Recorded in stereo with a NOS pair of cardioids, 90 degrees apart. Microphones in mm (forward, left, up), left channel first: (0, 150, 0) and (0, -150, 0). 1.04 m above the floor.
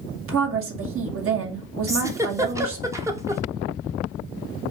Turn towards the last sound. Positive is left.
turn(degrees=-10)